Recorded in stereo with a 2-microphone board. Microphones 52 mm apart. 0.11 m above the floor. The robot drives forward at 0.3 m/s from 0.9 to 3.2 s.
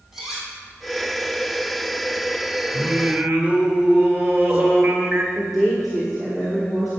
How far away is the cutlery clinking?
About 3 m.